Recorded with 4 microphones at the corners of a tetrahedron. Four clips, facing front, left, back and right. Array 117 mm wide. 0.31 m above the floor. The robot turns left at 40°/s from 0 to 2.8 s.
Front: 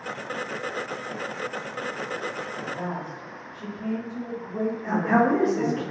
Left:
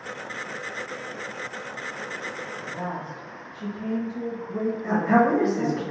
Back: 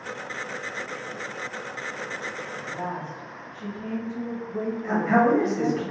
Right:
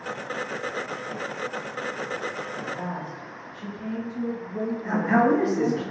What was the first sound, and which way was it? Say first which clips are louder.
A woman speaking: even, back 1 dB; 85° left.